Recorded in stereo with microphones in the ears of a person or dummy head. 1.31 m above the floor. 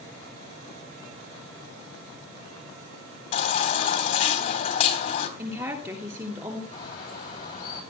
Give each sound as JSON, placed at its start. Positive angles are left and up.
{"t": 3.3, "sound": "a baby crying", "side_deg": 35, "distance_m": 3.0}
{"t": 5.4, "sound": "a woman speaking", "side_deg": -15, "distance_m": 2.5}
{"t": 6.7, "sound": "a bird", "side_deg": 25, "distance_m": 8.0}